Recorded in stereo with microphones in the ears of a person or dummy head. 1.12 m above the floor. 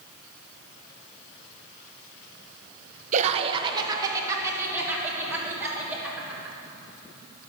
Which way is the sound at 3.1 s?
40° right (ahead or behind).